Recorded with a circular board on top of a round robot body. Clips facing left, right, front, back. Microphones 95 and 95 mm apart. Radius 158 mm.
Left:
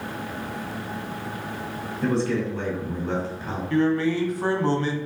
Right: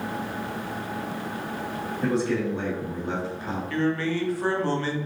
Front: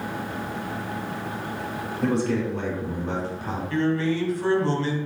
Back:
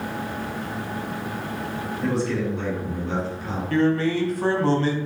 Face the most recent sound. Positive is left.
turn(degrees=155)